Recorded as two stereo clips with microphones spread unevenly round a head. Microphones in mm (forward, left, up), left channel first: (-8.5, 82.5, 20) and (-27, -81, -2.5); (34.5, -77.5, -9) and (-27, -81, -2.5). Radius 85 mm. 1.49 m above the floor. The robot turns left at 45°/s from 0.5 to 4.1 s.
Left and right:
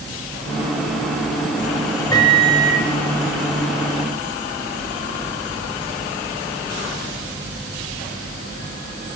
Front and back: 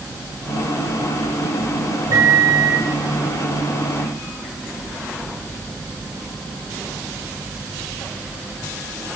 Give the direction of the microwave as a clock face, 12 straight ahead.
7 o'clock.